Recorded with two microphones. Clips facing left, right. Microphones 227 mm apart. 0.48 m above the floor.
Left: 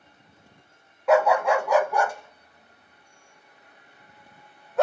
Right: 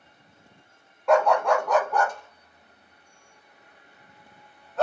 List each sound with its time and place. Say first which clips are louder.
1.1 s a dog barking: left 1 dB; 5° left (ahead or behind), 0.7 m; by 4.8 s 15° left (ahead or behind), 2.5 m